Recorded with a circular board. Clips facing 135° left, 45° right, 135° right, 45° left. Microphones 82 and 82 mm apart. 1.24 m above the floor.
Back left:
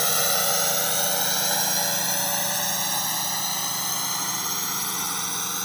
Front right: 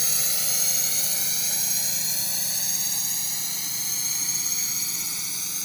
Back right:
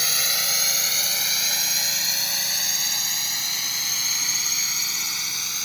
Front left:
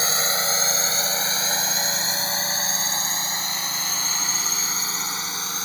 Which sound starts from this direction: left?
A drone, at 0.0 s.